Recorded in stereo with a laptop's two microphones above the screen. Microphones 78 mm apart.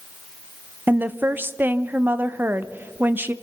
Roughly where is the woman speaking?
Right.